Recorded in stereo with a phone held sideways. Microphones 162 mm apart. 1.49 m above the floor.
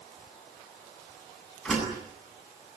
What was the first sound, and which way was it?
A door slam, centre (ahead or behind).